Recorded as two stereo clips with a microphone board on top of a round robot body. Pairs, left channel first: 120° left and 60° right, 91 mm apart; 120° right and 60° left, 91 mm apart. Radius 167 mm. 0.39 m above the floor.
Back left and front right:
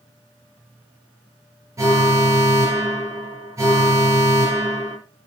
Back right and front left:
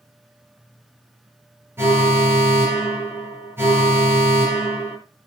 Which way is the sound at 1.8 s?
5° right.